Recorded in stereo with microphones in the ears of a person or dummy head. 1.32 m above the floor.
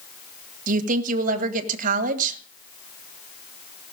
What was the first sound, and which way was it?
A woman speaking, 50° right (ahead or behind).